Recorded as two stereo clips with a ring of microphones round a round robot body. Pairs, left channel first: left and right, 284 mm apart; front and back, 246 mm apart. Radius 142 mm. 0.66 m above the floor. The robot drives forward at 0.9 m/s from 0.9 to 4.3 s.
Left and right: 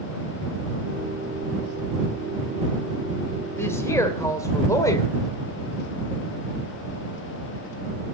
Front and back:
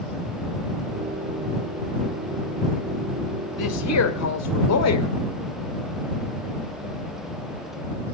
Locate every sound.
3.6 s a woman speaking: 10° left, 3 m